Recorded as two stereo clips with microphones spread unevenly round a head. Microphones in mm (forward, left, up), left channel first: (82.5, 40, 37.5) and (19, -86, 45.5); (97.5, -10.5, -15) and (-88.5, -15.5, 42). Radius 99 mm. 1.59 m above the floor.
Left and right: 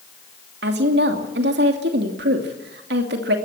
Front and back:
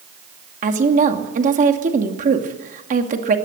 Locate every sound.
0.6 s a woman speaking: 135° right, 2.5 m